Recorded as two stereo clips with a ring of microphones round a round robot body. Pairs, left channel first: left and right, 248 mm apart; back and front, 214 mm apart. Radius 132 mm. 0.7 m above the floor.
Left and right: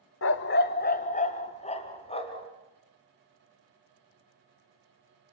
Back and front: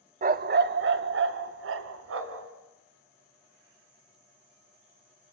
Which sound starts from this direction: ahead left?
A dog barking, at 0.2 s.